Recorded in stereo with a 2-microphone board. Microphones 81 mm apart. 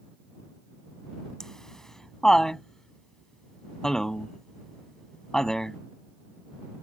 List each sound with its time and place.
1.4 s laughter: 10° left (ahead or behind)